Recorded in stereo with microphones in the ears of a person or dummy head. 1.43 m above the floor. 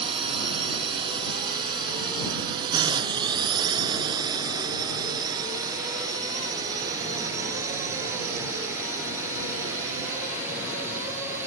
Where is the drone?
35° right (ahead or behind); by 11.5 s 10° right (ahead or behind).